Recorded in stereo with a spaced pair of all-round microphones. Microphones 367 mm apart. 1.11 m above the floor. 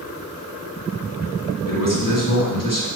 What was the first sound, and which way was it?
A man speaking, 60° left (ahead or behind).